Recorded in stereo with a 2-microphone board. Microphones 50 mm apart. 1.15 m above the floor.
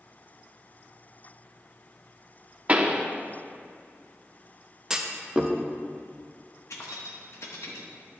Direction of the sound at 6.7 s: 80° left.